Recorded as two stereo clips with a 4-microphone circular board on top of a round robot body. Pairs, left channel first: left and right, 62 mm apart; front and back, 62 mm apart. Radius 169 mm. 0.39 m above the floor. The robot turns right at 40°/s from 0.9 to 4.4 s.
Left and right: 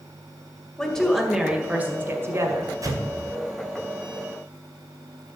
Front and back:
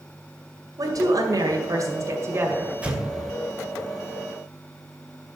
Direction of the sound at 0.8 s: 165° left.